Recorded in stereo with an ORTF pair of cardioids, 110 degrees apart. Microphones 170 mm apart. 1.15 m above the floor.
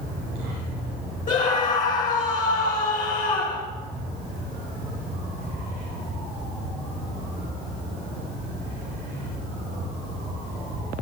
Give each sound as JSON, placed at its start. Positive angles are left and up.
{"t": 1.3, "sound": "a scream", "azimuth_deg": 50, "distance_m": 1.5}